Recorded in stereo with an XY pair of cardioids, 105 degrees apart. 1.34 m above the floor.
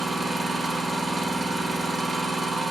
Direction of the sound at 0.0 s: 40° right.